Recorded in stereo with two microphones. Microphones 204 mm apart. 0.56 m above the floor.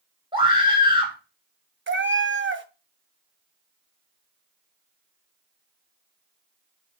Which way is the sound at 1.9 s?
65° right (ahead or behind).